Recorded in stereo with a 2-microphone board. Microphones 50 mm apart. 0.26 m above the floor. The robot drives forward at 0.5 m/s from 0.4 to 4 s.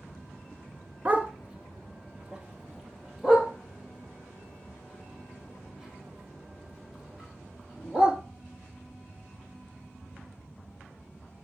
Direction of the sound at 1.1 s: 30° right (ahead or behind).